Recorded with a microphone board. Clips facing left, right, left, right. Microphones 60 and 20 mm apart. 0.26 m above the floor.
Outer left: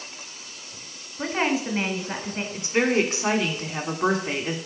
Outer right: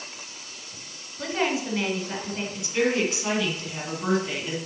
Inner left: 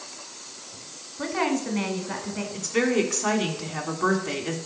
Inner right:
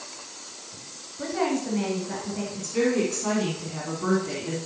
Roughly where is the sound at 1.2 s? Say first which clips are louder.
Outer left 2 dB, inner left 1 dB; left.